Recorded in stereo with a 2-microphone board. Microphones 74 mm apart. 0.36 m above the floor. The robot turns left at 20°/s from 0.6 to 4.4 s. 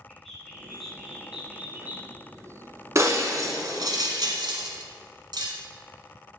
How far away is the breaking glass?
About 1.0 m.